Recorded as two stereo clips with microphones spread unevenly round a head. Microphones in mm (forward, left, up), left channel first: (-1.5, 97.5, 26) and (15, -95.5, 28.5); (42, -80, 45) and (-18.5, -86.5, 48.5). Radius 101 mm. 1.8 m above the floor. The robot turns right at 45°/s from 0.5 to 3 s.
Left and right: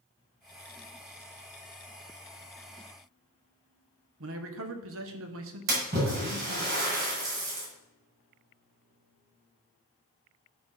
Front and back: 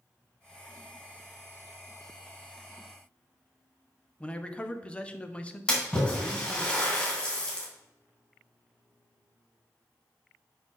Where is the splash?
65° right, 2.5 m.